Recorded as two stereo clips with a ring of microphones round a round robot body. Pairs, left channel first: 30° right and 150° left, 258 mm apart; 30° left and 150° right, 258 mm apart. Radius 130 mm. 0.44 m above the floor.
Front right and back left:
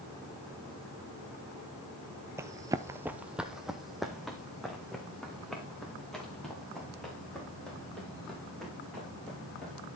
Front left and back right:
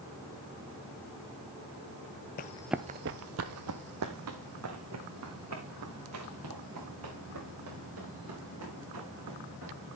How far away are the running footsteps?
About 0.5 m.